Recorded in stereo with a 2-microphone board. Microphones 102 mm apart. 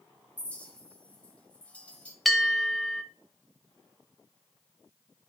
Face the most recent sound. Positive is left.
turn(degrees=0)  # may be behind; listen again after turning